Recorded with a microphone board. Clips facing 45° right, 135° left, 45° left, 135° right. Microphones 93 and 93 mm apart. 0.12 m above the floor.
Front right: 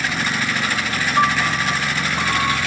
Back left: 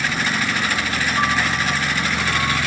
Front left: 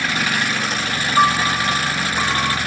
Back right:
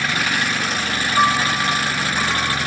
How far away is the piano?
About 4.5 m.